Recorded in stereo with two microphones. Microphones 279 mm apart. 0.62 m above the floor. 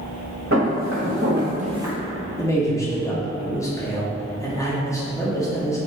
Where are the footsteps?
55° right (ahead or behind), 1.7 m; by 1.9 s centre (ahead or behind), 0.6 m.